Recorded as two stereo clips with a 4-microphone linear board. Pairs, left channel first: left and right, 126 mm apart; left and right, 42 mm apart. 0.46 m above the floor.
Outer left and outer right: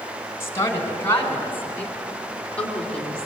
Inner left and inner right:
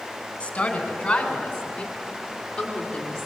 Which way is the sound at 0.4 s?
25° left (ahead or behind).